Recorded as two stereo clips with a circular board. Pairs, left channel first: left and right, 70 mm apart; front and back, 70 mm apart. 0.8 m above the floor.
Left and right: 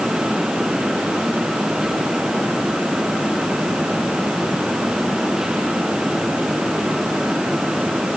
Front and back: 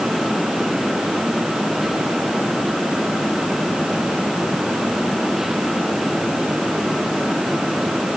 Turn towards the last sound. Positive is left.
No sound to turn to.